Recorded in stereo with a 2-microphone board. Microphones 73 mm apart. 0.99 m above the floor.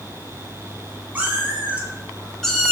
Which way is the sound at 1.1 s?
25° right (ahead or behind).